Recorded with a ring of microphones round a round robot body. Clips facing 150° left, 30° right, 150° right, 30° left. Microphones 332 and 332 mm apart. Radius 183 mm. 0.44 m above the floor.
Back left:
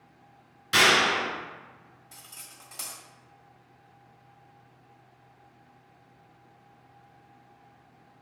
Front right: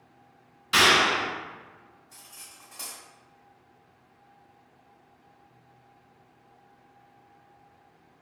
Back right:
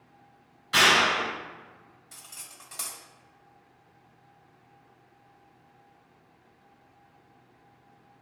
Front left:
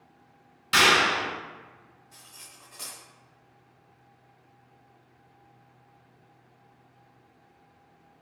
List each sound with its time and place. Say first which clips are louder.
0.7 s a clap: even, front left 1 dB; 65° left, 2.0 m
2.1 s cutlery clinking: back left 1 dB, back right 1 dB; 160° right, 1.5 m